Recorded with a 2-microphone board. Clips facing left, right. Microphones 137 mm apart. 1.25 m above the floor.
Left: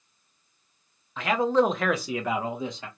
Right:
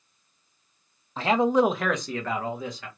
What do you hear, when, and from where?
1.2 s a man speaking: 35° right (ahead or behind), 0.6 m; by 2.9 s 25° left (ahead or behind), 1.2 m